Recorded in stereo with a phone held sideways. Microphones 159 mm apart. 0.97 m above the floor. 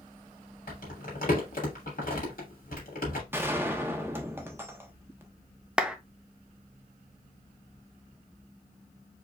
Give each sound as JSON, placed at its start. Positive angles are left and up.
{"t": 0.7, "sound": "crumpling", "side_deg": 65, "distance_m": 2.5}
{"t": 3.3, "sound": "a gunshot", "side_deg": -15, "distance_m": 0.8}
{"t": 5.8, "sound": "a clap", "side_deg": -5, "distance_m": 0.6}